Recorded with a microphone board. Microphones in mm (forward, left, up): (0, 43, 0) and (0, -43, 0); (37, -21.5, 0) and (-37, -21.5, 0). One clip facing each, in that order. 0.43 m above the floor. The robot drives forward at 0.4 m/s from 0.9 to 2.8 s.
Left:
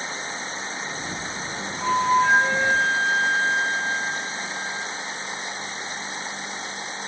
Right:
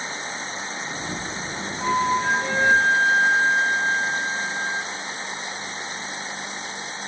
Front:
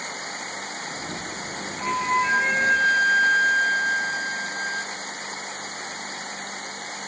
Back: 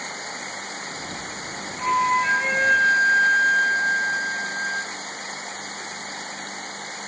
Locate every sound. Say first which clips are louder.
1.8 s a flute: left 2 dB, back 3 dB; 115° right, 3.5 m; by 4.9 s 120° right, 3.5 m